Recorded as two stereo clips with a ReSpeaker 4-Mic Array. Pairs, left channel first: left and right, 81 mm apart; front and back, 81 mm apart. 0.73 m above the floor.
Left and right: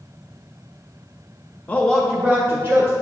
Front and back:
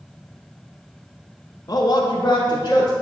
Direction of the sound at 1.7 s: 25° left.